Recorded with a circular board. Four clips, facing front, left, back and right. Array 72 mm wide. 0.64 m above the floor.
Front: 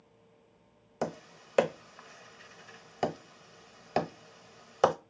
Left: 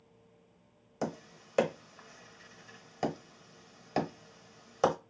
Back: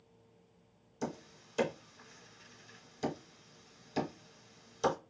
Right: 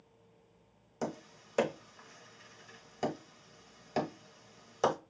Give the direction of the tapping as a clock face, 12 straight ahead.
12 o'clock.